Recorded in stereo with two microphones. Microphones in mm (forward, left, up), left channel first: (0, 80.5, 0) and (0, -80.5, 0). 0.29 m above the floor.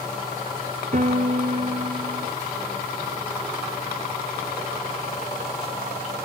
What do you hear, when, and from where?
0.9 s a piano: 55° right (ahead or behind), 1.6 m